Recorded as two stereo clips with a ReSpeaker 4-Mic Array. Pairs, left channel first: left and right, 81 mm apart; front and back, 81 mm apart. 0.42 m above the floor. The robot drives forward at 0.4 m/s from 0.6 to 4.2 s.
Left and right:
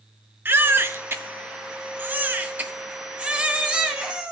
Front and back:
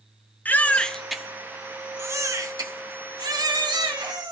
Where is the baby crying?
55° right, 0.6 m; by 4.3 s 170° right, 1.4 m.